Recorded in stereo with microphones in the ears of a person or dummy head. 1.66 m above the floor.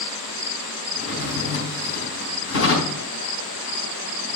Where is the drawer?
70° left (ahead or behind), 4 m.